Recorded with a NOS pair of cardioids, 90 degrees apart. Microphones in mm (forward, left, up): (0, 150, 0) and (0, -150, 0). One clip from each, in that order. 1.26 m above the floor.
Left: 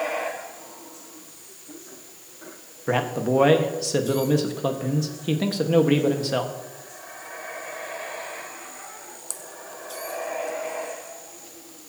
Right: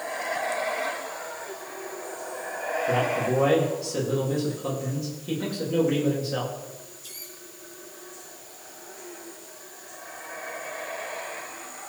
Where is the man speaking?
60° left, 1.8 m.